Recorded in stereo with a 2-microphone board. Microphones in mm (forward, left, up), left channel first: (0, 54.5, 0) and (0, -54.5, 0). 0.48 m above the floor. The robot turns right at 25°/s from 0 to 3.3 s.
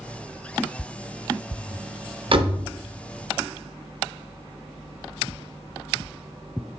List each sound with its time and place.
2.3 s a door slam: 55° right (ahead or behind), 0.7 m; by 2.6 s 50° right (ahead or behind), 0.7 m